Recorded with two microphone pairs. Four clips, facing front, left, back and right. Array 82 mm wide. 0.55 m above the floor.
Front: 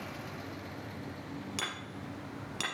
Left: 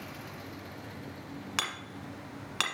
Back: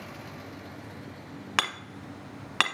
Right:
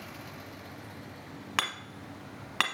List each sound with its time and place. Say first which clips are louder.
1.6 s hammering: right 4 dB, back 8 dB; 170° right, 1.2 m